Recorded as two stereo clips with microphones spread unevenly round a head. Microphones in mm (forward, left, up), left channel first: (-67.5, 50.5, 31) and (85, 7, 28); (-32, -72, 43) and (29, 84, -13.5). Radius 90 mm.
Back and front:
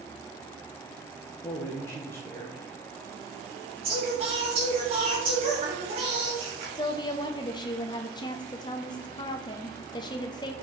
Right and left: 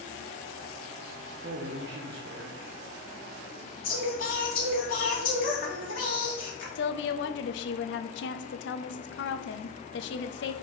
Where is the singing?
75° right, 2 m.